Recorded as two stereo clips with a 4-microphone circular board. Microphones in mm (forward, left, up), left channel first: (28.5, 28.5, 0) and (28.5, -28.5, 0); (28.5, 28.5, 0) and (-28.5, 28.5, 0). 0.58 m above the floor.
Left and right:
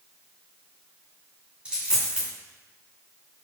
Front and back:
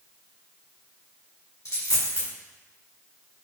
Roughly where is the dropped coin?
Ahead.